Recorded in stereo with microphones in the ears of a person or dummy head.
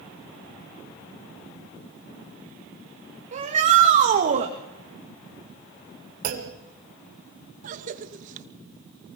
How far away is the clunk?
About 2 m.